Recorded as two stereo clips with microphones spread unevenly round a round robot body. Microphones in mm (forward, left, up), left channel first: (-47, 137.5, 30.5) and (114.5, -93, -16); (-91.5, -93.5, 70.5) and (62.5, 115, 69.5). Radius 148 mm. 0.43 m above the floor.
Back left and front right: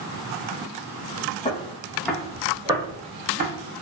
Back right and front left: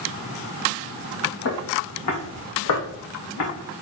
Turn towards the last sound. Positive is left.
turn(degrees=-125)